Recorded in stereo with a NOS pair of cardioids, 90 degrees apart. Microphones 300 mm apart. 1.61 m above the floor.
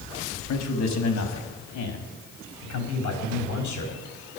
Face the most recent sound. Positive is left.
turn(degrees=75)